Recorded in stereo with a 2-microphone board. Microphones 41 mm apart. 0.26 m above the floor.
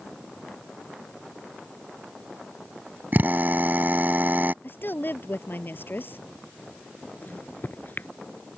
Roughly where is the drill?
Right.